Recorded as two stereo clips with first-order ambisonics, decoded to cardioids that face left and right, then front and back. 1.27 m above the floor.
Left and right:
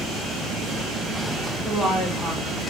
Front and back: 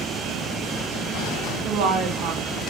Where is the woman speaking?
170° right, 0.9 m.